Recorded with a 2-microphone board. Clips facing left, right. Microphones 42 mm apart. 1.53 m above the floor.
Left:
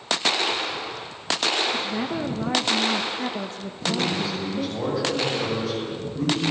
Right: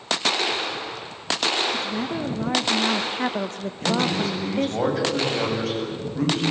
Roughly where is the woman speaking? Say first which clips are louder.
Even; left.